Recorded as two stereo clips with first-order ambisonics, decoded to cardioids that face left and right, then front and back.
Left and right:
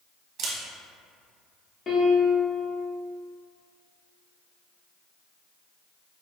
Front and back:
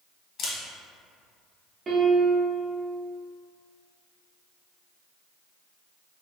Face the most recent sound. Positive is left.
turn(degrees=130)